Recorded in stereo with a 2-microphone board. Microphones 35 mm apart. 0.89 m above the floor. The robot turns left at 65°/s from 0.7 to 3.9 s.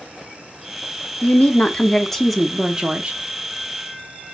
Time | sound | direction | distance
1.2 | a woman speaking | 70° left | 0.8 m